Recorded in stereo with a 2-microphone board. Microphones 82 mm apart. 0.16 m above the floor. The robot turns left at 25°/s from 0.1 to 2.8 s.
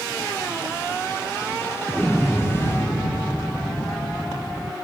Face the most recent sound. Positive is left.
turn(degrees=20)  # may be behind; listen again after turning